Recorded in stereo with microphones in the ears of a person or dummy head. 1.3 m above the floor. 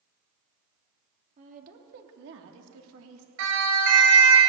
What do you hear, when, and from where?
1.4 s a woman speaking: 40° right (ahead or behind), 2.5 m; by 3.3 s 90° right, 2.5 m
3.4 s a siren: 80° right, 9.5 m